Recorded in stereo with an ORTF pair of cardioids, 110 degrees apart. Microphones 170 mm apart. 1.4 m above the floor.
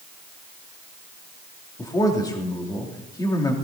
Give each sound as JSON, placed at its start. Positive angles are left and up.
{"t": 1.8, "sound": "a man speaking", "azimuth_deg": 20, "distance_m": 3.0}